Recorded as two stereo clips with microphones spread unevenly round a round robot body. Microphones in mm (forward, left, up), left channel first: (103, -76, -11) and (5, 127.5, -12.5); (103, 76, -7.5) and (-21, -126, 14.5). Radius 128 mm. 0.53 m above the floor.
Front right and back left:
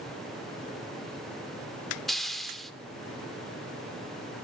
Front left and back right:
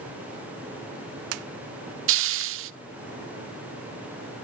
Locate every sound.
2.1 s a hiss: 155° right, 0.6 m